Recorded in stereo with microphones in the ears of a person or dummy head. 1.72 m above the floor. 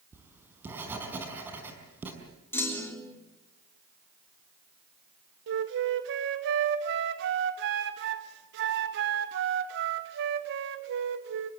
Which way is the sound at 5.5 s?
60° right (ahead or behind).